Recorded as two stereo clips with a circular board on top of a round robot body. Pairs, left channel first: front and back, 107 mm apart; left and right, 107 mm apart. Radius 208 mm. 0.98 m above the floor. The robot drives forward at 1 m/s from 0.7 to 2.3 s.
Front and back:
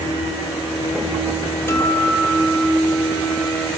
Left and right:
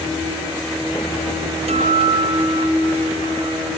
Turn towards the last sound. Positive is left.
turn(degrees=-80)